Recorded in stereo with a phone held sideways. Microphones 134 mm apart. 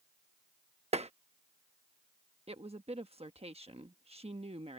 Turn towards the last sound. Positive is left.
turn(degrees=-50)  # may be behind; listen again after turning